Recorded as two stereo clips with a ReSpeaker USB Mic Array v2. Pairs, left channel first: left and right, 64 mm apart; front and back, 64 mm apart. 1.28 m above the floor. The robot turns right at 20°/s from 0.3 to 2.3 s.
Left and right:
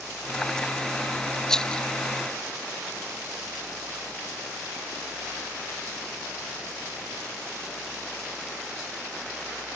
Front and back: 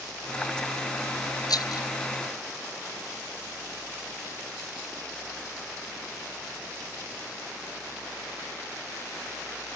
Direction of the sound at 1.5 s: 10° left.